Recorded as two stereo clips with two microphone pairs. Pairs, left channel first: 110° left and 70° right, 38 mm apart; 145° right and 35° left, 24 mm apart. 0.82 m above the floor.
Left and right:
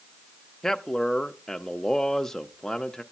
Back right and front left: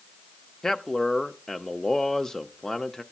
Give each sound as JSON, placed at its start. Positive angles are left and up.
{"t": 0.6, "sound": "a man speaking", "azimuth_deg": 180, "distance_m": 0.7}